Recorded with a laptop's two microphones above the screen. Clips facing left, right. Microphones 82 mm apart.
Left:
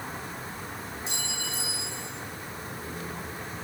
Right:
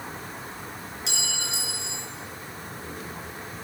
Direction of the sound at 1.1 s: 80° right.